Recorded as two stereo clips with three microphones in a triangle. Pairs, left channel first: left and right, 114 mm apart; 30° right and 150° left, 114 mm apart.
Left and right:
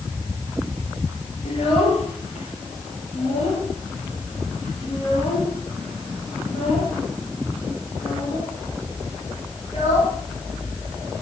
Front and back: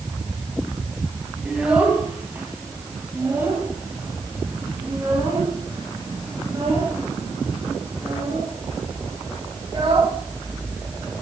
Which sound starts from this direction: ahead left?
A child speaking, at 1.4 s.